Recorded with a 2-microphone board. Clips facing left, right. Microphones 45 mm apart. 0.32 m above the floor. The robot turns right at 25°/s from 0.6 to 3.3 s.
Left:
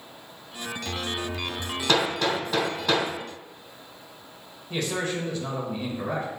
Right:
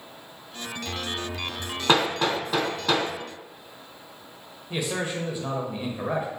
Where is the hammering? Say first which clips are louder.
Right 2 dB; 30° right (ahead or behind), 1.3 m; by 3.1 s centre (ahead or behind), 1.3 m.